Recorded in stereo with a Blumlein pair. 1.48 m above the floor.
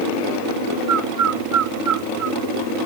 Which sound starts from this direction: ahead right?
A bird, at 0.9 s.